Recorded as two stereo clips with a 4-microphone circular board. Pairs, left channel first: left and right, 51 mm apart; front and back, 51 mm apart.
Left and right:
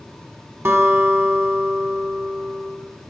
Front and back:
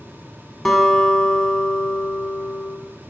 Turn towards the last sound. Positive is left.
turn(degrees=-85)